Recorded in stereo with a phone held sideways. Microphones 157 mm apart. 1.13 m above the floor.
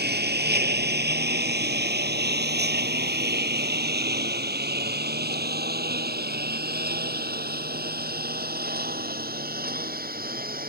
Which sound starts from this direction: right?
A lawn mower, at 0.0 s.